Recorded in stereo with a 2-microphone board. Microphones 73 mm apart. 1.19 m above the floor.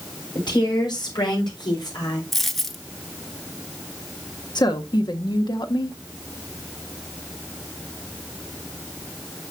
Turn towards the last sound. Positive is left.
turn(degrees=80)